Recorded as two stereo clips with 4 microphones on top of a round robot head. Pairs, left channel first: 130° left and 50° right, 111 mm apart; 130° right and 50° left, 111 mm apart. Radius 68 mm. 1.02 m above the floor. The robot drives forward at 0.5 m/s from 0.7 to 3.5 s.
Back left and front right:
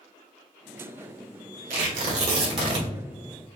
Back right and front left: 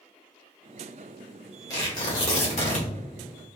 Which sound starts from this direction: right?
Tearing paper, at 1.7 s.